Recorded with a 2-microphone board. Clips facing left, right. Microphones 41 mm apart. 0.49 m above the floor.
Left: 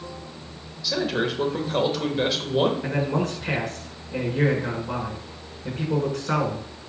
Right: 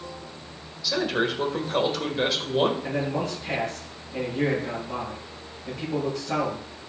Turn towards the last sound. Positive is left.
turn(degrees=75)  # may be behind; listen again after turning